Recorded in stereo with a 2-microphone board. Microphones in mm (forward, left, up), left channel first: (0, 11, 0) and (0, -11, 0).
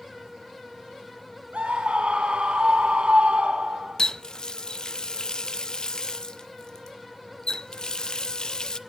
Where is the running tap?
35° left (ahead or behind), 0.5 m.